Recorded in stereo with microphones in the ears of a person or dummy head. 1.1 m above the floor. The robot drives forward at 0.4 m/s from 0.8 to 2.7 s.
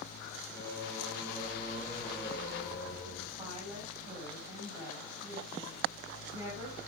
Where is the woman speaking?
25° right (ahead or behind), 7 m.